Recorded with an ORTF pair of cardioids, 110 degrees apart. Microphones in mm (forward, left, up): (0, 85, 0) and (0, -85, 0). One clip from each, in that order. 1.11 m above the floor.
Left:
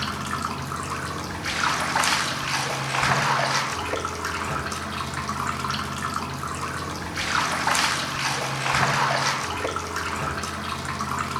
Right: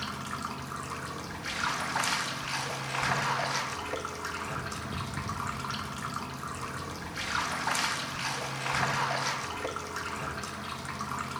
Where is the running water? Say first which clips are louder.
Left 8 dB; 40° left, 0.7 m.